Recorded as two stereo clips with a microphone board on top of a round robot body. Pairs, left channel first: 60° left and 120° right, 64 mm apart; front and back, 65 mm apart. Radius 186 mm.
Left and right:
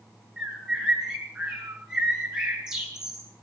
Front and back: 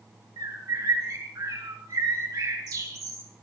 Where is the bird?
160° left, 3.5 m.